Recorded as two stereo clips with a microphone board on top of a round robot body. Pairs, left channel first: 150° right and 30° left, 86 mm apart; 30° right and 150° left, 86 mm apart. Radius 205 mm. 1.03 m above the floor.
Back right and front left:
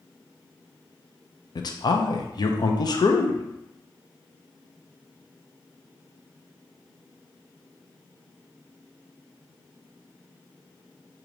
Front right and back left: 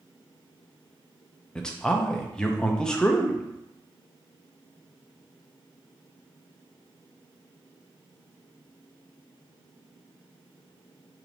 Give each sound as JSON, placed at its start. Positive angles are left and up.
{"t": 1.6, "sound": "a man speaking", "azimuth_deg": -110, "distance_m": 0.6}